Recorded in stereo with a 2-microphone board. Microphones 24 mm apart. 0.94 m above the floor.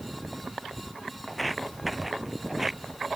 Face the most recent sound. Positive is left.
turn(degrees=-15)  # may be behind; listen again after turning